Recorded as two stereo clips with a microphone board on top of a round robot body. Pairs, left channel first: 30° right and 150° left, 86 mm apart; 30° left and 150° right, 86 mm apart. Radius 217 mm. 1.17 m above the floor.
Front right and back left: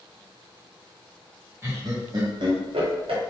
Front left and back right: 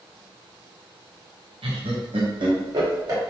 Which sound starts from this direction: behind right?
Laughter, at 1.6 s.